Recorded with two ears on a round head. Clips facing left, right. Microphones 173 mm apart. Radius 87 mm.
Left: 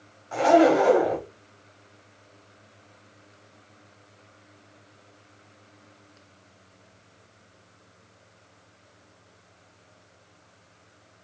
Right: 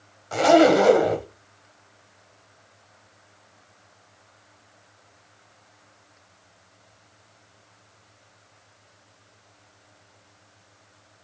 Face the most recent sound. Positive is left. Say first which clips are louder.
# right 2 dB
turn(degrees=-45)  # may be behind; listen again after turning